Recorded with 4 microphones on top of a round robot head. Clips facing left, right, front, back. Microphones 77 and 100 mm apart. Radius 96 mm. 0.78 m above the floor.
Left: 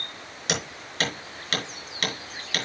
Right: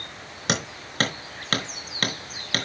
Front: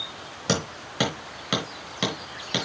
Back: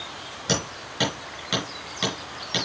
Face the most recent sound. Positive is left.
turn(degrees=-45)